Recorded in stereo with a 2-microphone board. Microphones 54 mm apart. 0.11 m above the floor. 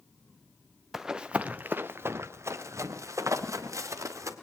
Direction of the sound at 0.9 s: 5° right (ahead or behind).